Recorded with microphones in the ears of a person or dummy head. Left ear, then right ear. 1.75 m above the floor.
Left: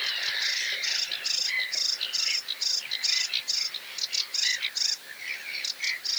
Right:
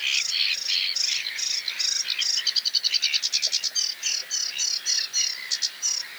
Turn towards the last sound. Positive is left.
No sound to turn to.